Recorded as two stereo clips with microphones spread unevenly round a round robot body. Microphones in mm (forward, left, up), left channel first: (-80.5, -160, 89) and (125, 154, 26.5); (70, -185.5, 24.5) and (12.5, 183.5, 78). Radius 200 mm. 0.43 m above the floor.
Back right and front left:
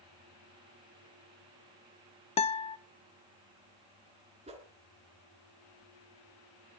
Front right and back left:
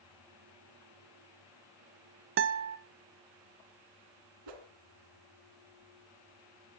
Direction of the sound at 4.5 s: 130° left.